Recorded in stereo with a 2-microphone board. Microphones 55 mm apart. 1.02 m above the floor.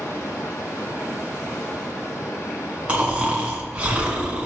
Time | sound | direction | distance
0.0 | running water | 65° left (ahead or behind) | 3 m
2.9 | snoring | 20° right (ahead or behind) | 1.8 m